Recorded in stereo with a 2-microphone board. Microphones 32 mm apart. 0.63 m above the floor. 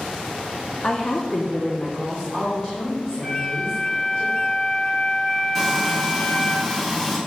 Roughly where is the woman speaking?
Left.